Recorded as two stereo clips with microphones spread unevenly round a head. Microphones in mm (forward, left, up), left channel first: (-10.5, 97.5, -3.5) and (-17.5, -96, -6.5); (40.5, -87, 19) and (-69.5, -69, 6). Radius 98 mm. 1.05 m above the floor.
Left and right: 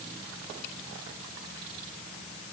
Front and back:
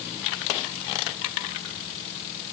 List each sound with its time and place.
Only background noise.